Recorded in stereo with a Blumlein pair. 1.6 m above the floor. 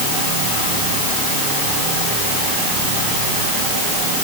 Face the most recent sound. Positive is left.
No sound to turn to.